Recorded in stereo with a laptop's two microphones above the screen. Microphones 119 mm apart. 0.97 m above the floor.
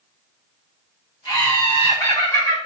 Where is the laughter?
50° left (ahead or behind), 1.4 m; by 2.6 s 20° left (ahead or behind), 1.4 m.